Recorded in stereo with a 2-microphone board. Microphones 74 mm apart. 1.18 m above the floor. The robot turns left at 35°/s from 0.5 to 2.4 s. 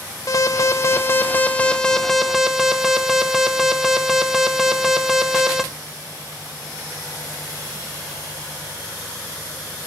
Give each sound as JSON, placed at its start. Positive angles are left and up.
{"t": 0.3, "sound": "an alarm", "azimuth_deg": 60, "distance_m": 1.1}